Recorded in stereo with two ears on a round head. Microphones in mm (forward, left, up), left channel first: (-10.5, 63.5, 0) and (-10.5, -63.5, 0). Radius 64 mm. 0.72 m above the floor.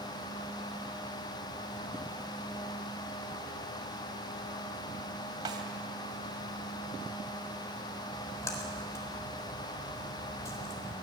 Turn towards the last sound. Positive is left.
turn(degrees=20)  # may be behind; listen again after turning